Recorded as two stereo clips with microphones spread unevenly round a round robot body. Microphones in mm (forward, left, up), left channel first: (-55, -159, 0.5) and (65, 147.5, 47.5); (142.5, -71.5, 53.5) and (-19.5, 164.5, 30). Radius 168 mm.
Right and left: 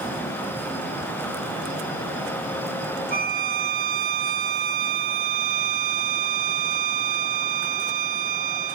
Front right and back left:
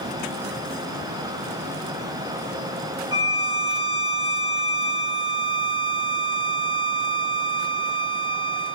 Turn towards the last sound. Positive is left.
turn(degrees=100)